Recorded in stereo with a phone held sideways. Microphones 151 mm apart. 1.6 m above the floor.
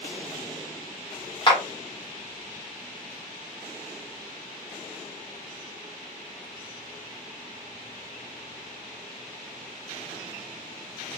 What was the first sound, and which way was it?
A clap, 35° left (ahead or behind).